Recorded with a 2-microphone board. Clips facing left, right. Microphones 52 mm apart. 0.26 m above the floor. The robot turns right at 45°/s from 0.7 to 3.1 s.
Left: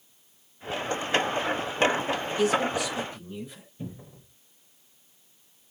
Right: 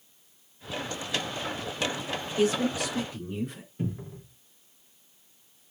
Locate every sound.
2.4 s a man speaking: 160° right, 4 m; by 3.7 s 125° right, 4 m
3.8 s a cupboard door: 50° right (ahead or behind), 4 m